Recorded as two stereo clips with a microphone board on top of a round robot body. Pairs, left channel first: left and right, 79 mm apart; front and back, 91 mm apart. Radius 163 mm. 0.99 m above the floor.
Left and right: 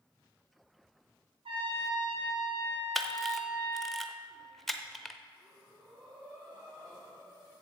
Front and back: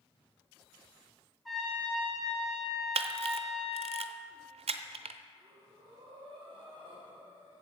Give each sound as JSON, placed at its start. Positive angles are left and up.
{"t": 1.4, "sound": "a trumpet", "azimuth_deg": -90, "distance_m": 3.5}
{"t": 3.0, "sound": "a camera shutter", "azimuth_deg": 175, "distance_m": 0.6}
{"t": 5.3, "sound": "breathing", "azimuth_deg": -140, "distance_m": 3.0}